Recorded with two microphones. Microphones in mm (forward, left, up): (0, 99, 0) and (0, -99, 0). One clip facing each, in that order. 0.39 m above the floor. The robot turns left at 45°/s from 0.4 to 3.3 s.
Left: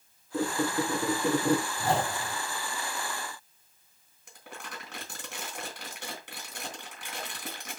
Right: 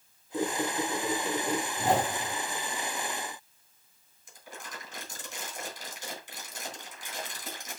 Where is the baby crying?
No baby crying in this recording.